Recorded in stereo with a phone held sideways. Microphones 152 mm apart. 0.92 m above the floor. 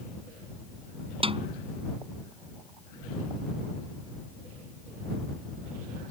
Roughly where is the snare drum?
Right.